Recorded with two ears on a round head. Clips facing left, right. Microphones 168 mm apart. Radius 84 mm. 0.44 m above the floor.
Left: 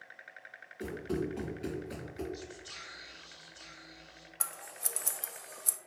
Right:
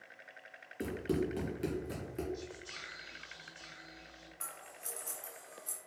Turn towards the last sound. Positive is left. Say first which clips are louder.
# left 5 dB
turn(degrees=80)